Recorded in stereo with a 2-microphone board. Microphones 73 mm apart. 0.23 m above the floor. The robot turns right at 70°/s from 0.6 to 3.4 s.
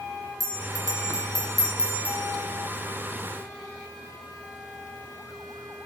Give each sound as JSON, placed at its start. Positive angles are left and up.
{"t": 0.4, "sound": "a bell", "azimuth_deg": -120, "distance_m": 2.5}